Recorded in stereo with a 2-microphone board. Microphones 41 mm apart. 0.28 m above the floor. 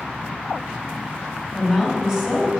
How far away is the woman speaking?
About 1.8 m.